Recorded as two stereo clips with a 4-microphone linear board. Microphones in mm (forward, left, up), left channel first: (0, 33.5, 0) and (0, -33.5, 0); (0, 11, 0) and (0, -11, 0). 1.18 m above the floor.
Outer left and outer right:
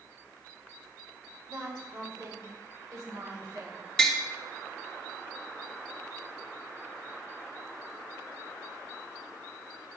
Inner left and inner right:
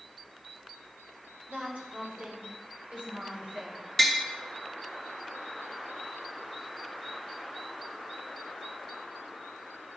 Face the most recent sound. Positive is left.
turn(degrees=10)  # may be behind; listen again after turning